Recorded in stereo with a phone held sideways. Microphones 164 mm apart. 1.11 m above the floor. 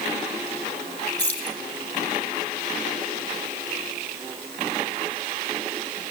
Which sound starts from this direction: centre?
Keys jangling, at 1.2 s.